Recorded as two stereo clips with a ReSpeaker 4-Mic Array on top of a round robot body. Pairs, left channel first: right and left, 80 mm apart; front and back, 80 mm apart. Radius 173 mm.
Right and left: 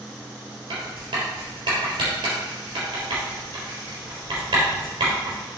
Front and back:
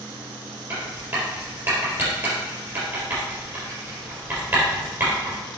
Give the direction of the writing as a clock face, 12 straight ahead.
8 o'clock.